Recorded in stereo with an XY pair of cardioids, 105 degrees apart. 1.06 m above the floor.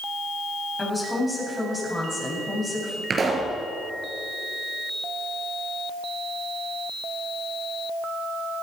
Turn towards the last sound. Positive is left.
turn(degrees=-35)